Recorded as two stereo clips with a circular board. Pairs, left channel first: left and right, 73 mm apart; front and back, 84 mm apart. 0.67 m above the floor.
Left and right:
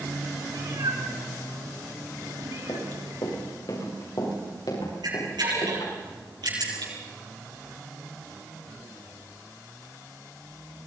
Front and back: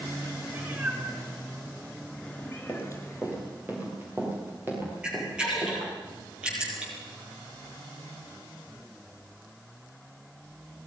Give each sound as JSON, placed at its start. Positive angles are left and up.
{"t": 0.5, "sound": "a cat meowing", "azimuth_deg": -120, "distance_m": 3.5}
{"t": 2.7, "sound": "running footsteps", "azimuth_deg": 110, "distance_m": 7.0}
{"t": 5.0, "sound": "a camera shutter", "azimuth_deg": -100, "distance_m": 9.5}